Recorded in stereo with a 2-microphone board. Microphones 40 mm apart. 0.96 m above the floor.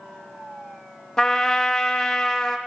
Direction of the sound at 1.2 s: 15° left (ahead or behind).